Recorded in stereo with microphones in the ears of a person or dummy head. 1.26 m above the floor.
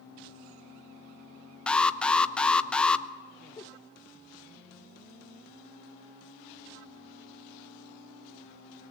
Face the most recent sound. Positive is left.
turn(degrees=15)  # may be behind; listen again after turning